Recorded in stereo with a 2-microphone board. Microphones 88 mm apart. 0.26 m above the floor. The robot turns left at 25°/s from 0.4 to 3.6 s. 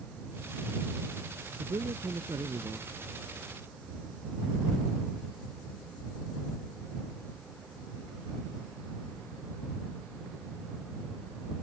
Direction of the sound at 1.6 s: 105° right.